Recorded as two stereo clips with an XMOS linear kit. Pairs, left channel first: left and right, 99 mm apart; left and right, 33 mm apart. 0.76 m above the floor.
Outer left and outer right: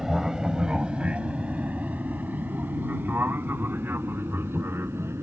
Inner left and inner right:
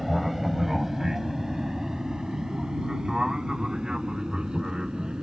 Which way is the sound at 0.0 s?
5° right (ahead or behind).